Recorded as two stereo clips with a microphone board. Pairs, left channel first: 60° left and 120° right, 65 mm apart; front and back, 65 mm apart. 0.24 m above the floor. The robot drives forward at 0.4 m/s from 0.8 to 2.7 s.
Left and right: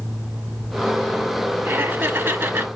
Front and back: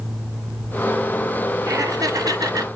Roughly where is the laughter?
Behind.